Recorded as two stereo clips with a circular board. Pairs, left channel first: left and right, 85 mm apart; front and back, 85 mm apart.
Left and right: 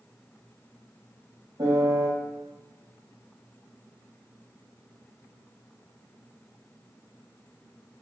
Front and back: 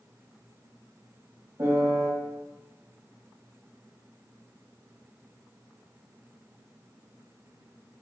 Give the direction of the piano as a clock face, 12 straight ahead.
4 o'clock.